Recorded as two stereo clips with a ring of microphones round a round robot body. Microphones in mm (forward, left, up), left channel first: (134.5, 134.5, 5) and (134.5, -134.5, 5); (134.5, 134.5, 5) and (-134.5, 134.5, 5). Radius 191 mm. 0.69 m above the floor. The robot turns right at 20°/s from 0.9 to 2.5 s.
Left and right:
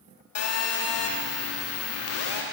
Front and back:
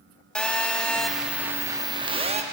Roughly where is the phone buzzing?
Left.